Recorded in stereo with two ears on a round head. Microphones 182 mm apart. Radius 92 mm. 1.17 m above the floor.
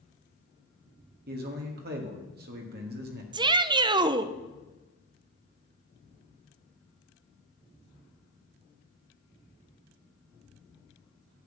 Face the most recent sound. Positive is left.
turn(degrees=-20)  # may be behind; listen again after turning